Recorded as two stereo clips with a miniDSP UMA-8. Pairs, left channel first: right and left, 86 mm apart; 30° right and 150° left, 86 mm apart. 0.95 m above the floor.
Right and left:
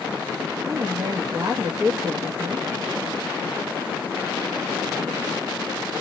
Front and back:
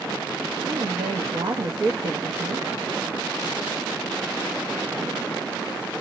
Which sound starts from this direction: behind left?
A woman speaking, at 0.6 s.